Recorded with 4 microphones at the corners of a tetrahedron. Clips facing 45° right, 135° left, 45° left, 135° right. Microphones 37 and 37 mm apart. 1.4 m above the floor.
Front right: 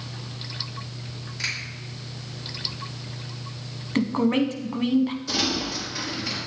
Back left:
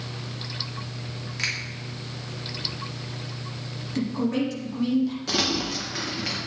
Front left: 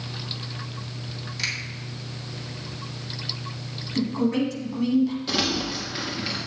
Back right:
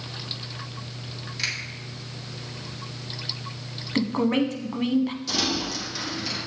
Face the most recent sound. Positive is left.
turn(degrees=105)